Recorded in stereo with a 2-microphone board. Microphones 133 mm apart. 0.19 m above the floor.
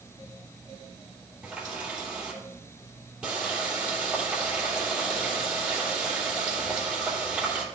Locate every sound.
1.4 s a running tap: 10° right (ahead or behind), 3 m